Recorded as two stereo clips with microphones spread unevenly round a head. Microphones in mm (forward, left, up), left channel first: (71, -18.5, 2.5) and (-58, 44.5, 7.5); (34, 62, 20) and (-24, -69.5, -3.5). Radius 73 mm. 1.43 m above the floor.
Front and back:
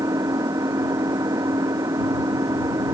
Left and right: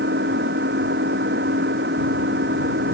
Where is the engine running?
135° right.